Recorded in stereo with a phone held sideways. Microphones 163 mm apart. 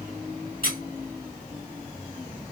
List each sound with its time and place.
0.6 s a squeak: 70° left (ahead or behind), 2.5 m